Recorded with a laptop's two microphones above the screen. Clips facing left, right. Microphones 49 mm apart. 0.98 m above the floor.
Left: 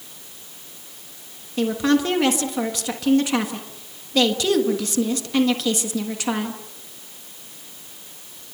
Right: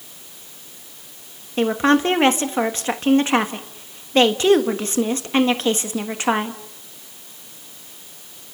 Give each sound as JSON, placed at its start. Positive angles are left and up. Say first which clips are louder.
{"t": 1.6, "sound": "a woman speaking", "louder": "right 3 dB", "side_deg": -35, "distance_m": 1.3}